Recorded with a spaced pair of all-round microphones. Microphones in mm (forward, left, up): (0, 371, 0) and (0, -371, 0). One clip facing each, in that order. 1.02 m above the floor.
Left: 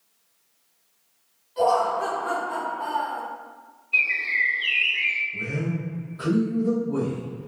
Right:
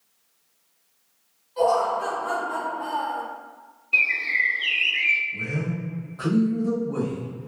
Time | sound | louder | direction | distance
1.6 | laughter | right 1 dB | 45° left (ahead or behind) | 1.9 m
3.9 | a bird | right 2 dB | 70° right (ahead or behind) | 0.5 m
5.3 | a man speaking | left 1 dB | 70° right (ahead or behind) | 1.5 m